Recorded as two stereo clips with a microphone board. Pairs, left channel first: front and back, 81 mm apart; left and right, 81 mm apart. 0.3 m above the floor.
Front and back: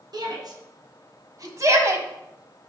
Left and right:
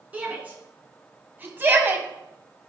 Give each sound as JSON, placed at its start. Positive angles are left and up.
{"t": 0.1, "sound": "a shout", "azimuth_deg": -160, "distance_m": 3.0}